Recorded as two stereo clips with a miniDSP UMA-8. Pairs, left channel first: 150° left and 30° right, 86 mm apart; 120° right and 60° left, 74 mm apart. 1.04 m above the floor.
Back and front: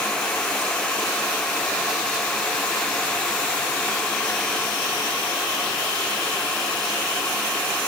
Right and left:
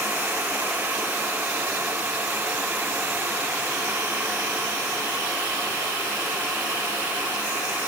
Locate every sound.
Only background noise.